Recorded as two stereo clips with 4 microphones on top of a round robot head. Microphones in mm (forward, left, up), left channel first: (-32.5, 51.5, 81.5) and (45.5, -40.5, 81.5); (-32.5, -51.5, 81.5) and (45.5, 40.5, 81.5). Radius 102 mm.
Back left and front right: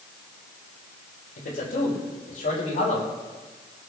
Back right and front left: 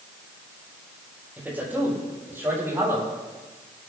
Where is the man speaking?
130° left, 8.5 m; by 3.1 s 115° left, 8.5 m.